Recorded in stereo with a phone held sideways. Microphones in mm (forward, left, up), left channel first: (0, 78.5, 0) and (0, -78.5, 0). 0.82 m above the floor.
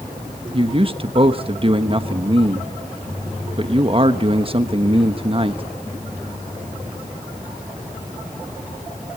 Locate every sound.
0.5 s a man speaking: 40° right (ahead or behind), 1.2 m